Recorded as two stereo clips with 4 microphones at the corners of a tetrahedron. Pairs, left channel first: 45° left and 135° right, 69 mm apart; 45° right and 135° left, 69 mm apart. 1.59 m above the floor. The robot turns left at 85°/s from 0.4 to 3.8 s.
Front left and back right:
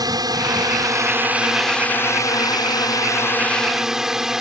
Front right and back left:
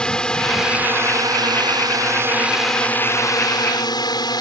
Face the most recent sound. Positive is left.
turn(degrees=-50)